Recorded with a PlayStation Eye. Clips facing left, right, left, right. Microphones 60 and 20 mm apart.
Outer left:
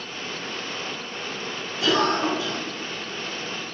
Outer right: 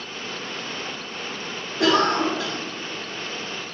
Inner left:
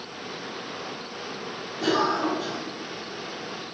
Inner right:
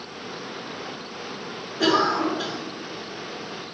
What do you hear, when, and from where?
1.8 s a cough: 70° right (ahead or behind), 2.5 m